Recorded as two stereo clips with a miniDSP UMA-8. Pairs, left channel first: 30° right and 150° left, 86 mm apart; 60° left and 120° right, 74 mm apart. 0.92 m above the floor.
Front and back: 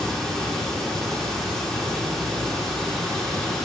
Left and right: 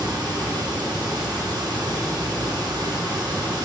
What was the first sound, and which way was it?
Running water, 110° right.